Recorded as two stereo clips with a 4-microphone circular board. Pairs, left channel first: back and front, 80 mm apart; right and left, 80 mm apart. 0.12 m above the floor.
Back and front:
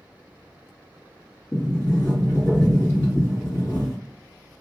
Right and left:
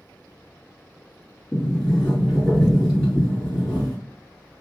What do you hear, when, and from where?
1.5 s a sliding door: 175° right, 1.9 m